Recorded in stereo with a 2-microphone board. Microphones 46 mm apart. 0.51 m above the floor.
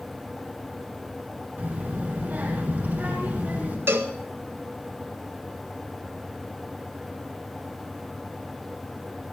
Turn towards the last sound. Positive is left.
turn(degrees=-55)  # may be behind; listen again after turning